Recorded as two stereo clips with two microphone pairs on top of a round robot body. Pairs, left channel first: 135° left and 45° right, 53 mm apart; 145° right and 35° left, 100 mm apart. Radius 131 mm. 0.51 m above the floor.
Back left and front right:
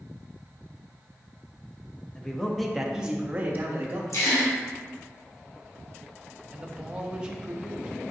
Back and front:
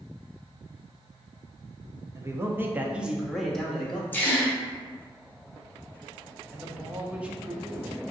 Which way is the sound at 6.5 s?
15° right.